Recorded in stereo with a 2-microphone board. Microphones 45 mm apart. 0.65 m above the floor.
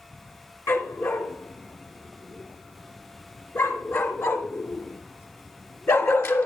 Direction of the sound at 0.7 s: 70° left (ahead or behind).